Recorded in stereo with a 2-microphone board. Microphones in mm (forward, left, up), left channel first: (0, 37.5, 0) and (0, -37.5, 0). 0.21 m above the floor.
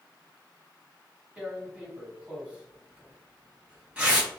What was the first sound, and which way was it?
Tearing paper, 15° right (ahead or behind).